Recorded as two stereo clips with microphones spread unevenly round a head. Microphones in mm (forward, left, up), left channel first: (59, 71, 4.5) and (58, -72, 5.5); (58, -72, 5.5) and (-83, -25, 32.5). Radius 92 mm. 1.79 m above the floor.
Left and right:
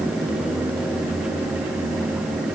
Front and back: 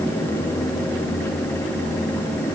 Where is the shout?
No shout in this recording.